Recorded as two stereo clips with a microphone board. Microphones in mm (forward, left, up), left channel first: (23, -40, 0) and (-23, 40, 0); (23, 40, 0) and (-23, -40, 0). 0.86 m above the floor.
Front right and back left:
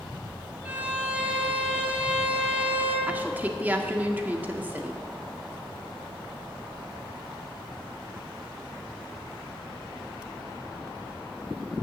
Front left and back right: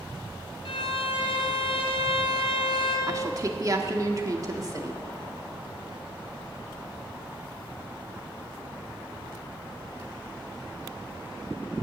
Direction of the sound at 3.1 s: 170° right.